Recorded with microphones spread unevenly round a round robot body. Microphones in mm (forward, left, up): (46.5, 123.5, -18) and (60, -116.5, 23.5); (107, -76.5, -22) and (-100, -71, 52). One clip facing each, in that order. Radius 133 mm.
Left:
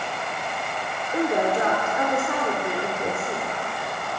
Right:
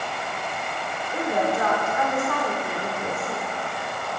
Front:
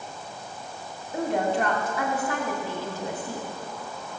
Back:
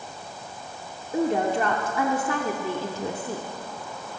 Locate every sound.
1.1 s a woman speaking: 165° left, 2 m